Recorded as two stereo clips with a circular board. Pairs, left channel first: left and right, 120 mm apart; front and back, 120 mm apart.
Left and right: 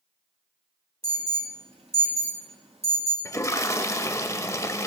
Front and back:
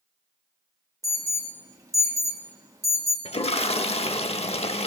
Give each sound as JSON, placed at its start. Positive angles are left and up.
{"t": 1.0, "sound": "an alarm", "azimuth_deg": -120, "distance_m": 2.0}
{"t": 3.2, "sound": "a toilet flushing", "azimuth_deg": 25, "distance_m": 0.6}